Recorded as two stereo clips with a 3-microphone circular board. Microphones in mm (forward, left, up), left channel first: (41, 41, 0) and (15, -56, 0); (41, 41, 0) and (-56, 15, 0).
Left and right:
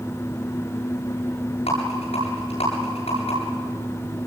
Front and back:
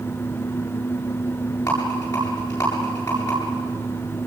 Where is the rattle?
70° left, 9 m.